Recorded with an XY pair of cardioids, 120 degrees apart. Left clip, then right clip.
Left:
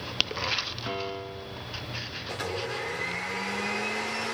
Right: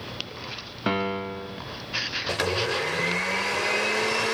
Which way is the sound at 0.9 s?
60° right.